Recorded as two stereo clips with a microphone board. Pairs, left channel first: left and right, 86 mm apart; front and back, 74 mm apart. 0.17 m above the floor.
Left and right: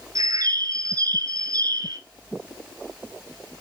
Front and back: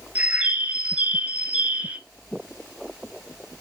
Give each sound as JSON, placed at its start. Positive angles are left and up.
{"t": 0.1, "sound": "a bird", "azimuth_deg": -110, "distance_m": 0.5}